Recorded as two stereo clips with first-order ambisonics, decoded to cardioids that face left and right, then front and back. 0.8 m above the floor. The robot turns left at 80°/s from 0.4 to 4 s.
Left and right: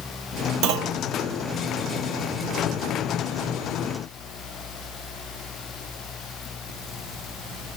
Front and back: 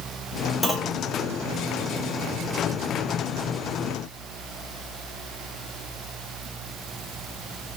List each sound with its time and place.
0.6 s a clunk: 80° right, 0.8 m; by 1.0 s 110° right, 0.8 m